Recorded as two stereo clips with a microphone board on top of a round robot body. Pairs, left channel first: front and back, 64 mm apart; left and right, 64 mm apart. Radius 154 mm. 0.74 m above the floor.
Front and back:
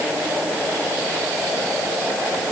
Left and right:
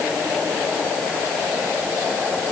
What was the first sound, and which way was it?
Only background noise.